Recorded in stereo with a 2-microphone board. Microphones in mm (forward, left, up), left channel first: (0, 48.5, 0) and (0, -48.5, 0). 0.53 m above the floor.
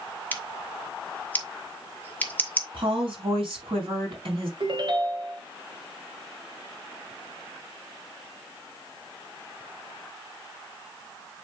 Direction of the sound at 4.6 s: 55° right (ahead or behind).